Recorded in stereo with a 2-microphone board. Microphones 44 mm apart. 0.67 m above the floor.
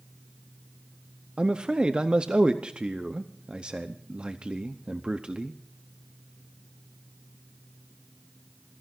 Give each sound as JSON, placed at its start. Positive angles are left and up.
{"t": 1.4, "sound": "a man speaking", "side_deg": -25, "distance_m": 0.7}